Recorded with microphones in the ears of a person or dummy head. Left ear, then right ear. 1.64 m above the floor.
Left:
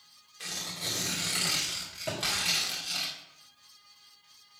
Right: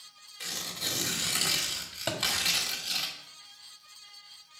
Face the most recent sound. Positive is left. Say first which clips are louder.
# right 3 dB
turn(degrees=-35)  # may be behind; listen again after turning